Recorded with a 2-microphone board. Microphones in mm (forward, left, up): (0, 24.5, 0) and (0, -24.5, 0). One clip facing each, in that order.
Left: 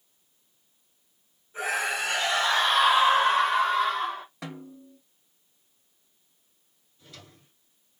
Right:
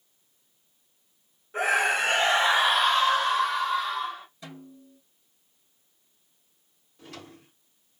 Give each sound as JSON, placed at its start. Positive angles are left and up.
{"t": 1.5, "sound": "a scream", "side_deg": -60, "distance_m": 1.5}
{"t": 4.4, "sound": "a snare drum", "side_deg": 75, "distance_m": 1.3}
{"t": 7.0, "sound": "a drawer", "side_deg": -80, "distance_m": 1.0}